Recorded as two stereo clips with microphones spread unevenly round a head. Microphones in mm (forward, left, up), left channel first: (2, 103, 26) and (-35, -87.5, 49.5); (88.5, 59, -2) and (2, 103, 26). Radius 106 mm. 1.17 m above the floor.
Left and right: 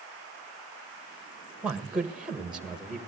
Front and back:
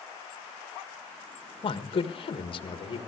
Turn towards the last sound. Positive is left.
turn(degrees=-15)